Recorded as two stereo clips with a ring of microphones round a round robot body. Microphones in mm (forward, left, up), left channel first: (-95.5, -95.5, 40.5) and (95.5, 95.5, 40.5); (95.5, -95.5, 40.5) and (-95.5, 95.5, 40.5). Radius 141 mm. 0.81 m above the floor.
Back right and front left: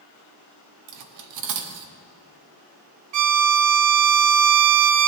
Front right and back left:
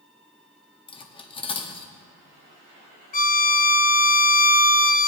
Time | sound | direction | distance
0.9 | cutlery clinking | 25° left | 0.8 m
3.1 | a violin | 15° left | 0.7 m